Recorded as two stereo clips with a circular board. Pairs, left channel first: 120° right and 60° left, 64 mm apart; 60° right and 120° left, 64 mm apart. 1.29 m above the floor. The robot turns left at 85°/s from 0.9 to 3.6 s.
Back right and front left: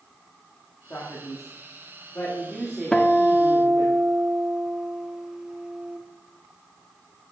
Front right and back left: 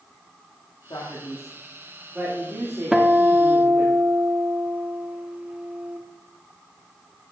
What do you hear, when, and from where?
0.9 s a man speaking: 60° right, 2 m; by 3.9 s 70° left, 2 m
2.9 s a guitar: 170° right, 0.8 m; by 6.0 s 130° left, 0.8 m